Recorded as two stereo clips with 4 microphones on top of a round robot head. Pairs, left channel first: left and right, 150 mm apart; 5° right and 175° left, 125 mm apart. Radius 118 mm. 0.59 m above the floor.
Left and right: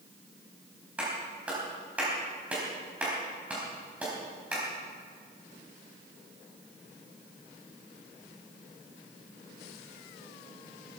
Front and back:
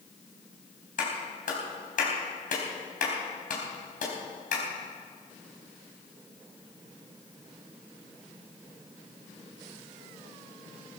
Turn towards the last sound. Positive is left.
turn(degrees=-10)